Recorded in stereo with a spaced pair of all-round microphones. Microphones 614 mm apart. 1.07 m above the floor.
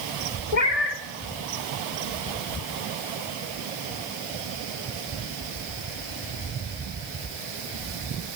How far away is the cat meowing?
About 2.0 m.